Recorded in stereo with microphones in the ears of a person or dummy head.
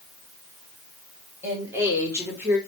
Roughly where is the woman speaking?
Centre.